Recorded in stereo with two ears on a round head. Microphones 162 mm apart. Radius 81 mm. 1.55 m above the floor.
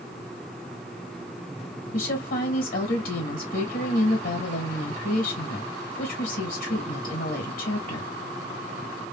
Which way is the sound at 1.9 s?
50° left (ahead or behind).